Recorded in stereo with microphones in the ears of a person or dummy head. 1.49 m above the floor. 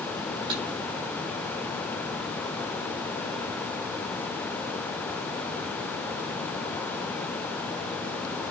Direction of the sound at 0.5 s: 30° right (ahead or behind).